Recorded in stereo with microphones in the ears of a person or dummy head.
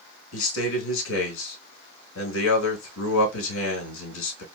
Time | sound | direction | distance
0.3 | a man speaking | 75° left (ahead or behind) | 2.5 m